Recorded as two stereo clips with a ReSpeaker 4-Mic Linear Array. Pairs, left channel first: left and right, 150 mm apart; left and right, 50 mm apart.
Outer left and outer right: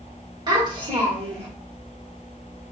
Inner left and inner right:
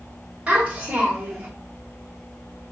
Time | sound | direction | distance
0.5 | a child speaking | 30° right (ahead or behind) | 1.4 m